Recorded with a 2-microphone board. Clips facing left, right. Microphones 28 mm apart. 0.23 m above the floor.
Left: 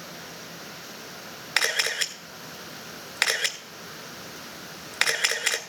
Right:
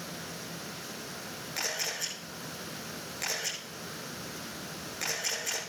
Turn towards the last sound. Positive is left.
turn(degrees=75)  # may be behind; listen again after turning